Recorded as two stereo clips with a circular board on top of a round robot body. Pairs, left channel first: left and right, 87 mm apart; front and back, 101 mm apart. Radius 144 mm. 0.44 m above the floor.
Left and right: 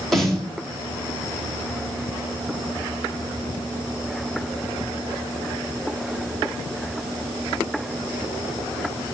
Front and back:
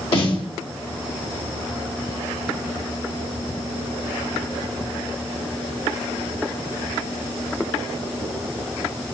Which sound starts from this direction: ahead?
A snare drum, at 0.1 s.